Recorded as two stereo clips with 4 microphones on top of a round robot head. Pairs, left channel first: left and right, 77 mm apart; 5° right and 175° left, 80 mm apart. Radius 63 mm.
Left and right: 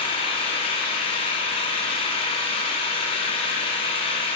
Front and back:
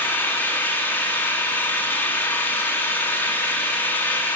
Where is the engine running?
60° left, 3.5 m.